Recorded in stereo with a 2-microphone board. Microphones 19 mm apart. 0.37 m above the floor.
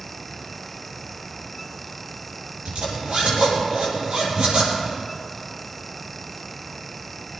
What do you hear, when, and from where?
2.6 s a zipper: 65° right (ahead or behind), 6 m